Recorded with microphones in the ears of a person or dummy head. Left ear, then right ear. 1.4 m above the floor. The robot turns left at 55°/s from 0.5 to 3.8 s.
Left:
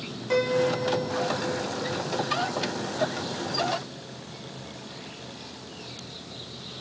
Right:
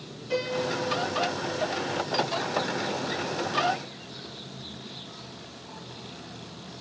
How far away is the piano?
About 1.8 m.